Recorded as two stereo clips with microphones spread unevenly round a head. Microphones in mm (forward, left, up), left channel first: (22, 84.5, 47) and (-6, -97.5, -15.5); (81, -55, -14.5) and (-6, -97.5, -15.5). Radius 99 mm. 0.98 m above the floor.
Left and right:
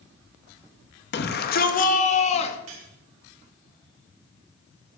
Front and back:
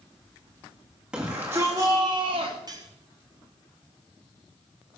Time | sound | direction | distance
1.1 | a shout | 120° left | 1.8 m
2.7 | cutlery clinking | 110° right | 4 m